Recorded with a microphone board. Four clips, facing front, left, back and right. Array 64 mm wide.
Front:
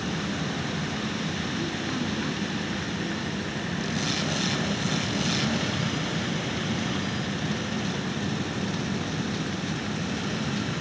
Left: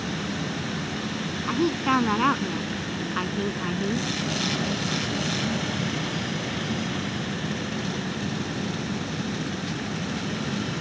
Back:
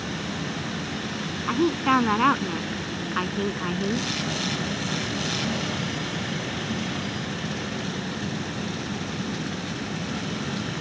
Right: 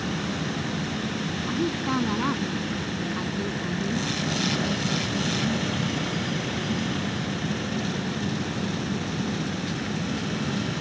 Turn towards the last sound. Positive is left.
turn(degrees=155)